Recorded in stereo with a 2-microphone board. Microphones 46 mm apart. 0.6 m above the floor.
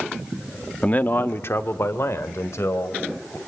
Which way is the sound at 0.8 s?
25° left (ahead or behind).